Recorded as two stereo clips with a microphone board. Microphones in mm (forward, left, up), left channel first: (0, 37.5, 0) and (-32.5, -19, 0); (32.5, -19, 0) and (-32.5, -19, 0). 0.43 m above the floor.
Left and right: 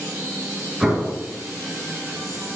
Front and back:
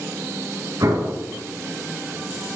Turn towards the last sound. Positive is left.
turn(degrees=155)